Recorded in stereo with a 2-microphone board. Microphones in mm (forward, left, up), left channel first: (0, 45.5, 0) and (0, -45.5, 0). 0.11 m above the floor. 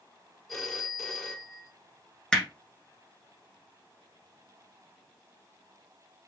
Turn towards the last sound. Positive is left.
turn(degrees=5)  # may be behind; listen again after turning